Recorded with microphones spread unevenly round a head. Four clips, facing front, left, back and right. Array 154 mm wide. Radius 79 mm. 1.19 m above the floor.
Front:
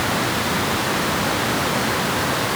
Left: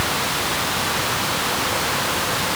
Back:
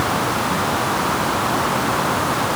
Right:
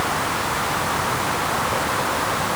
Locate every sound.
Only background noise.